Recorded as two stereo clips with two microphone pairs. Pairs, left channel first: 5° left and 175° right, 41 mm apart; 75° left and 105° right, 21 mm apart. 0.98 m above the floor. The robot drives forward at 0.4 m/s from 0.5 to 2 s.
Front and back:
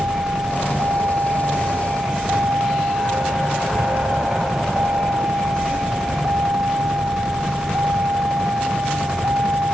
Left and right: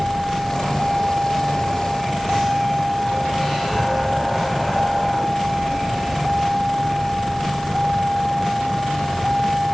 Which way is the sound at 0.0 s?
175° right.